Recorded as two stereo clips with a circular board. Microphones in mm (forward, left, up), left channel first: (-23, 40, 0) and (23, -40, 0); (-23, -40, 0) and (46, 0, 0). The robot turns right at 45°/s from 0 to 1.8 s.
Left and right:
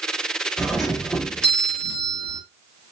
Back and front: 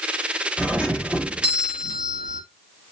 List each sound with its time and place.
0.6 s a doorbell: 20° left, 1.0 m; by 2.4 s 75° left, 1.0 m